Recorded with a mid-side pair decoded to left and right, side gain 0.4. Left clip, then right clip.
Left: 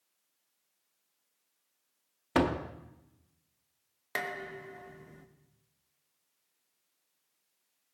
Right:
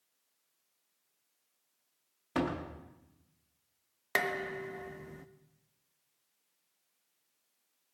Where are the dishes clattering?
40° right, 1.0 m.